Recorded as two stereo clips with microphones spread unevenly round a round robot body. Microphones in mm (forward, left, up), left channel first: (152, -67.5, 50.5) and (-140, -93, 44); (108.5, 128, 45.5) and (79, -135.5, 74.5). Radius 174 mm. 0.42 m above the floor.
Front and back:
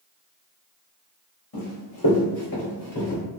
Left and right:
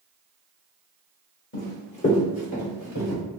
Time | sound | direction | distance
1.5 | running footsteps | 35° left | 1.8 m